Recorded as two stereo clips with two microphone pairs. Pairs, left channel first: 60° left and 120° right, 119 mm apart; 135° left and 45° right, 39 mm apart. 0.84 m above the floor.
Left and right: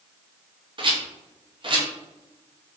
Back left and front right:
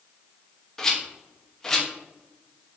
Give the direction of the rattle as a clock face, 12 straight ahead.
5 o'clock.